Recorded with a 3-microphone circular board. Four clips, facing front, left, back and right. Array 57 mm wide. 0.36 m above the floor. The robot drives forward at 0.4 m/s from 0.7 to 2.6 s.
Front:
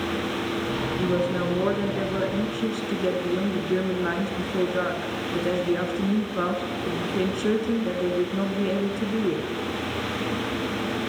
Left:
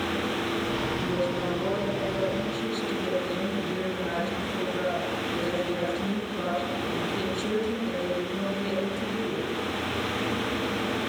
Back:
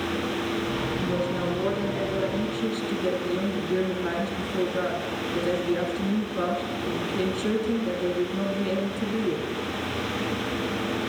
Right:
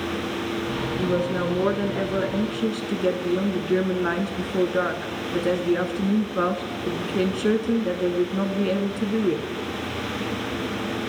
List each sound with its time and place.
1.0 s a woman speaking: 60° right, 4.5 m; by 9.4 s 65° right, 4.5 m